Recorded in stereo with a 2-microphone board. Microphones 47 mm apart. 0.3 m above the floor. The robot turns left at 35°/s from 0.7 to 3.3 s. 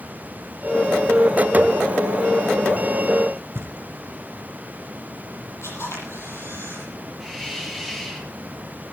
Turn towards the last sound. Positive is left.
turn(degrees=10)  # may be behind; listen again after turning